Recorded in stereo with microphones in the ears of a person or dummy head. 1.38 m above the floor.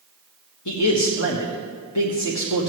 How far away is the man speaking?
About 1.5 m.